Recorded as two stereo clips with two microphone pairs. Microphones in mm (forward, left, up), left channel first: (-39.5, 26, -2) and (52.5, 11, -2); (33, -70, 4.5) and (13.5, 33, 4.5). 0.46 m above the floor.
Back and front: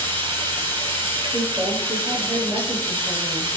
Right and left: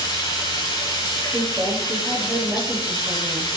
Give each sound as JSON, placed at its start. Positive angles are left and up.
{"t": 0.0, "sound": "running water", "azimuth_deg": -30, "distance_m": 6.0}
{"t": 1.3, "sound": "a woman speaking", "azimuth_deg": 35, "distance_m": 9.0}